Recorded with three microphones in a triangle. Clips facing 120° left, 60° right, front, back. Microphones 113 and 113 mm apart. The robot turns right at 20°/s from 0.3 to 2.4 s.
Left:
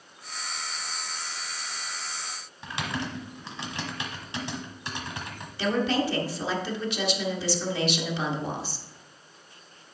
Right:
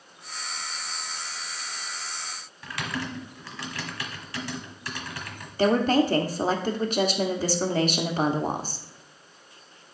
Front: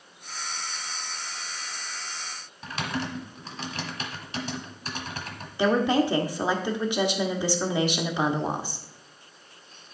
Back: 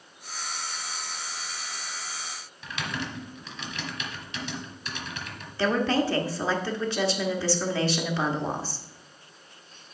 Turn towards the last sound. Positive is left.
turn(degrees=-70)